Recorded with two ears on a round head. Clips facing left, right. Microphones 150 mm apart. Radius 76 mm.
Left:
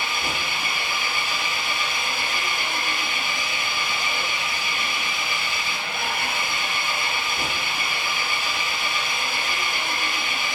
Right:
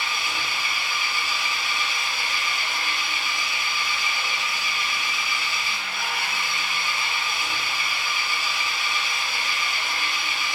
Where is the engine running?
45° left (ahead or behind), 4 m.